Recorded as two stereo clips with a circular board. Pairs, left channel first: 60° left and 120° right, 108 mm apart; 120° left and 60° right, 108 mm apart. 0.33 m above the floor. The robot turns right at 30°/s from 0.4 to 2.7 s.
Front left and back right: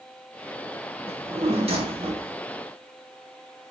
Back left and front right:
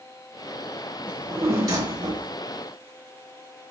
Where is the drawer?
130° right, 1.5 m; by 2.3 s 90° right, 1.5 m.